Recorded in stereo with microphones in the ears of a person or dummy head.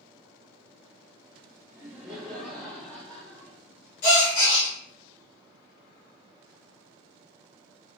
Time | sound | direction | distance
1.7 | laughter | 10° right (ahead or behind) | 0.8 m
4.0 | a gasp | 50° left (ahead or behind) | 1.7 m